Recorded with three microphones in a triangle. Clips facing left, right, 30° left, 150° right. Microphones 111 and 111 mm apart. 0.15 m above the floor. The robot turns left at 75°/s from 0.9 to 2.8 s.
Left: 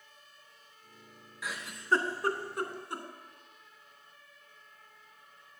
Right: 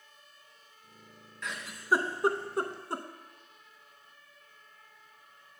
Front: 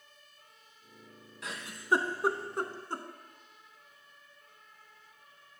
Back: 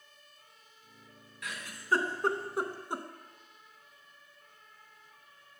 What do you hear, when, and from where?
1.4 s a giggle: 15° left, 0.6 m; by 3.0 s 85° right, 0.6 m